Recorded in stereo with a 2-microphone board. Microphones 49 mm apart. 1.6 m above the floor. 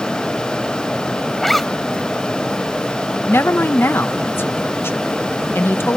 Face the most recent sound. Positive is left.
turn(degrees=50)  # may be behind; listen again after turning